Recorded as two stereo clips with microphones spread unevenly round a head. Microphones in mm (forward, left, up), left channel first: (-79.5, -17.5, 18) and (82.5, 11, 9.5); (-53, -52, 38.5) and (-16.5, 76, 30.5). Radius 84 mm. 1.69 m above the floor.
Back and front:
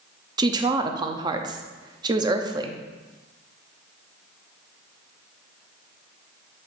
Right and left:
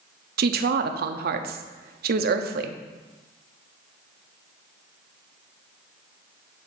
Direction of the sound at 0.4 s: 80° left.